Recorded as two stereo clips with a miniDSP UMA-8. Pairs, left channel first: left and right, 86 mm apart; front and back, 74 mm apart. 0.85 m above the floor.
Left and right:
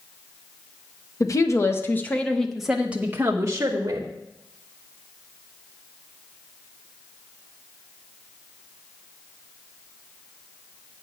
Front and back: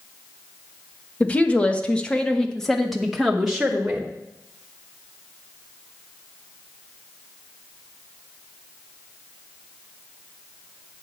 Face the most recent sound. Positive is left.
turn(degrees=-105)